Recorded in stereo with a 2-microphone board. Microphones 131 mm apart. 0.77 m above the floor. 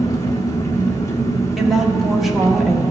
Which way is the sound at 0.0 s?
25° left (ahead or behind).